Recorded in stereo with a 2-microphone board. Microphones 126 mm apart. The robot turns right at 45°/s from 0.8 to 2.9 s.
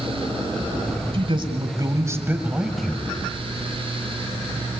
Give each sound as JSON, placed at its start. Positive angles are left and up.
{"t": 1.1, "sound": "a man speaking", "azimuth_deg": -75, "distance_m": 2.0}